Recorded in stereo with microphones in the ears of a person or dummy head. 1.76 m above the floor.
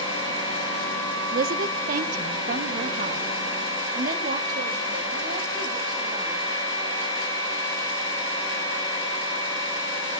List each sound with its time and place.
1.3 s a woman speaking: 50° right (ahead or behind), 1.6 m; by 6.5 s 45° right (ahead or behind), 5.5 m